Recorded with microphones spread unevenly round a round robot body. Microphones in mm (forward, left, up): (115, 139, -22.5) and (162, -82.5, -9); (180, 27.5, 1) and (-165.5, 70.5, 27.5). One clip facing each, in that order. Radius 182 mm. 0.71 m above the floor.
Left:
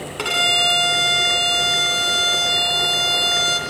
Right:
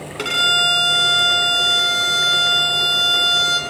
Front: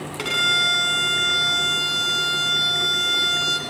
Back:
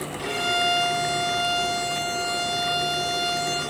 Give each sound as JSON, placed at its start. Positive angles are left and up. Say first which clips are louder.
{"t": 0.2, "sound": "a violin", "louder": "left 1 dB, back 3 dB", "azimuth_deg": -5, "distance_m": 2.5}